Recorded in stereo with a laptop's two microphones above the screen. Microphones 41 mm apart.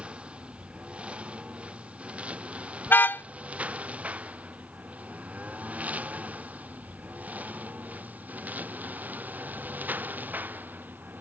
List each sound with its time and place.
0.0 s a lawn mower: 30° right (ahead or behind); by 11.2 s 50° right (ahead or behind)
2.9 s a car horn: 60° left (ahead or behind)